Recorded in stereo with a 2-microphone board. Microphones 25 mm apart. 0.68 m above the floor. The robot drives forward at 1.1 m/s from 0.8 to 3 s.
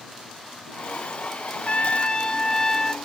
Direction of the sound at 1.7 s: 60° left (ahead or behind).